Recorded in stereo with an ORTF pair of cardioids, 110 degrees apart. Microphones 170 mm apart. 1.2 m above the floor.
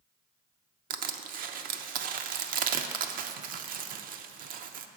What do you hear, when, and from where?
0.9 s crushing: 55° right, 0.6 m